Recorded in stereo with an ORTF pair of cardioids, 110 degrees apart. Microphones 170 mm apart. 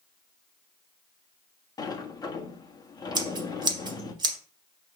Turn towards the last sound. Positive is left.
turn(degrees=-25)